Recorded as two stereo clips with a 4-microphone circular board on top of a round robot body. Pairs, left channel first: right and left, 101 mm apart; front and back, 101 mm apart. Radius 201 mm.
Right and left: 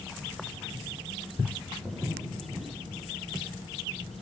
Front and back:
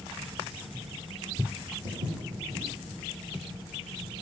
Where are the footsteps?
175° left, 5.5 m.